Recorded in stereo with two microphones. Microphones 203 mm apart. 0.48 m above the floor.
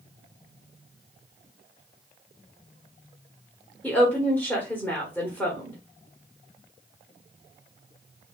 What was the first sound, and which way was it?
A woman speaking, 10° left (ahead or behind).